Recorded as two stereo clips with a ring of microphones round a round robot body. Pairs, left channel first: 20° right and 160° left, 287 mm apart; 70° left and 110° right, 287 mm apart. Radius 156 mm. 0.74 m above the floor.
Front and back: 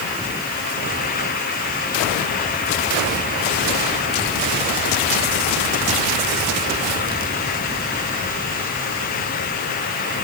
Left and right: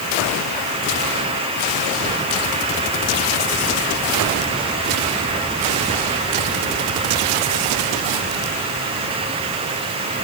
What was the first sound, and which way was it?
Only background noise.